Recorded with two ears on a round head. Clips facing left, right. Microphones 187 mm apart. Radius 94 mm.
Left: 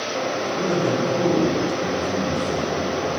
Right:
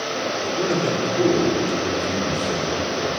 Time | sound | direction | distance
0.4 | a man speaking | 25° right (ahead or behind) | 2.5 m